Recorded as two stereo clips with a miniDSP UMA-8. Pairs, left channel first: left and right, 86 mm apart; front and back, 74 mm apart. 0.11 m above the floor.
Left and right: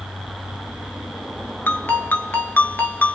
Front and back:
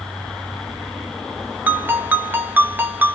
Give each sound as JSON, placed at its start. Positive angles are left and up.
{"t": 1.7, "sound": "a ringtone", "azimuth_deg": 135, "distance_m": 0.5}